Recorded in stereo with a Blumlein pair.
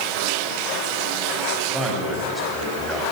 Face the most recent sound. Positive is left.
turn(degrees=0)